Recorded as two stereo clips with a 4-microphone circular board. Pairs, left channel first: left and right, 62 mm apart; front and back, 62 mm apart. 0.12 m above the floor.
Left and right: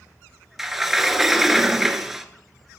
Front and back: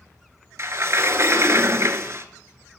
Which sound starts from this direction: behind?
A sliding door, at 0.6 s.